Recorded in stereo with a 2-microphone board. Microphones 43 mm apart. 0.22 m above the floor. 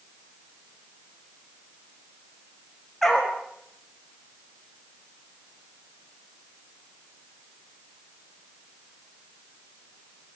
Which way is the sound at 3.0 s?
5° left (ahead or behind).